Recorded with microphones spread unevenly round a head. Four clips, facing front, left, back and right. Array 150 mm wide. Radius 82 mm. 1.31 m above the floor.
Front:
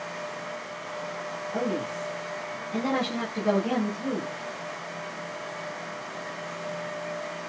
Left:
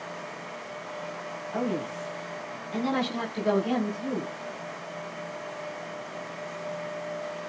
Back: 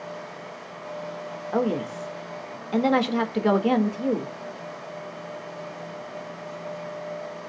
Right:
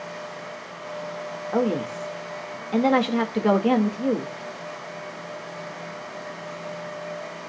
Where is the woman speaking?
120° right, 2 m.